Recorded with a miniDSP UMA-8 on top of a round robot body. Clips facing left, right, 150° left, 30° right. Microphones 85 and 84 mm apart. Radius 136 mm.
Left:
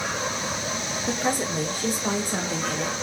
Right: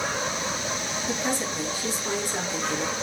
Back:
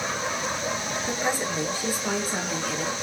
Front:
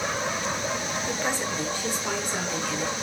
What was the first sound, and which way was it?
A woman speaking, 80° left.